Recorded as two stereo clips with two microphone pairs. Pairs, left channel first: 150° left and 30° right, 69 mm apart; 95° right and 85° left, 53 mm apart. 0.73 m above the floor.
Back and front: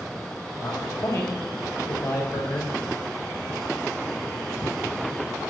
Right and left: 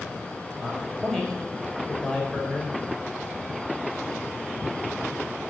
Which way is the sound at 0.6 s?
175° right.